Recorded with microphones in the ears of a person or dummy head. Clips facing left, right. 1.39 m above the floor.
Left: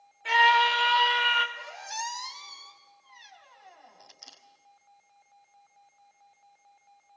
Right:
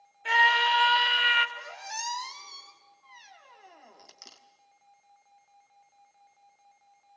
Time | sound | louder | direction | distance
0.2 | a scream | left 3 dB | 10° right (ahead or behind) | 2.5 m
1.6 | a squeak | left 2 dB | 40° right (ahead or behind) | 1.3 m